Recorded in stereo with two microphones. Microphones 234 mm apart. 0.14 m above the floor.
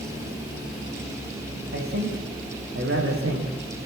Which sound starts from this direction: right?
A man speaking, at 1.7 s.